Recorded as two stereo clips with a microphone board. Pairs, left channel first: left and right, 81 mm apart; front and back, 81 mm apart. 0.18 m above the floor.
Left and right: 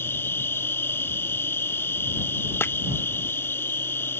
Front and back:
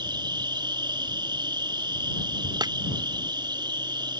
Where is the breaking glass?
150° left.